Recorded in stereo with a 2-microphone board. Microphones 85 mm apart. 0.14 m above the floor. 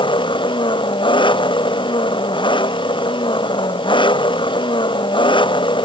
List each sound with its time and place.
0.0 s an engine running: 75° left (ahead or behind)